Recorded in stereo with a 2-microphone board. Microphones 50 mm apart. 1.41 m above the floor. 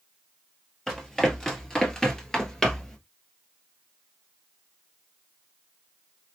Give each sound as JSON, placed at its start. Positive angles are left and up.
{"t": 0.9, "sound": "running footsteps", "side_deg": 10, "distance_m": 1.7}